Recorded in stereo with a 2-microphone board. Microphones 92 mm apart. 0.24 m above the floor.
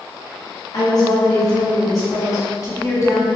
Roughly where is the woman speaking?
Left.